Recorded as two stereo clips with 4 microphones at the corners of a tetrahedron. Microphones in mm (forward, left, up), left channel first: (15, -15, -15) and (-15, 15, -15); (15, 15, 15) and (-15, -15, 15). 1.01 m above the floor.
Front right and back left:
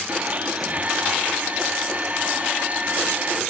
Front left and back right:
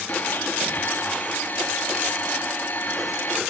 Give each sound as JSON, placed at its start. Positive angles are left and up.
{"t": 0.1, "sound": "a blender", "azimuth_deg": 85, "distance_m": 2.0}